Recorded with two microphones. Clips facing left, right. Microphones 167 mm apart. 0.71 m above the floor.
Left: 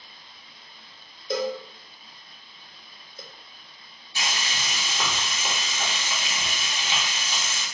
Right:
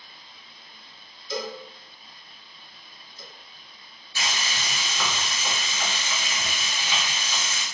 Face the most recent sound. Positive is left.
turn(degrees=20)  # may be behind; listen again after turning